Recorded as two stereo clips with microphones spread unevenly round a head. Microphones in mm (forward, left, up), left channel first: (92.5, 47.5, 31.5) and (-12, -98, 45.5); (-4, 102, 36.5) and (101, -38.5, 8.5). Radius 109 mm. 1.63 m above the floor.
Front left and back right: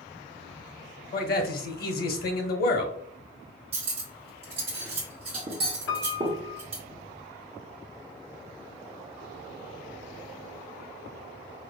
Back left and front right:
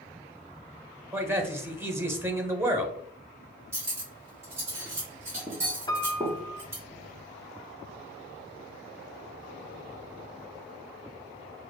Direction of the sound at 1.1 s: 25° left.